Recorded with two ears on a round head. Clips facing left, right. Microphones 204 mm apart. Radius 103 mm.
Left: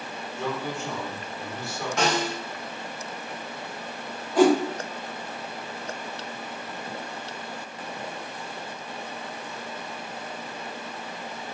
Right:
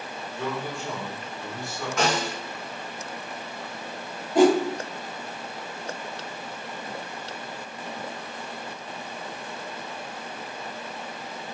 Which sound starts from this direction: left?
A snare drum, at 2.0 s.